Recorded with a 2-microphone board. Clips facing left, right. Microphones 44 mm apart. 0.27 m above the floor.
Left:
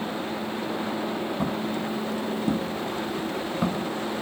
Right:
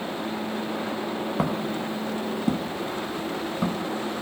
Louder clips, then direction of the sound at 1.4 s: Right 1 dB; 75° right (ahead or behind).